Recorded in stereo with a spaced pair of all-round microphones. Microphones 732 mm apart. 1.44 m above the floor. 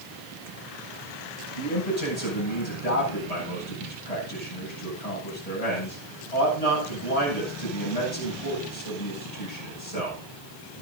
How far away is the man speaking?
About 9 m.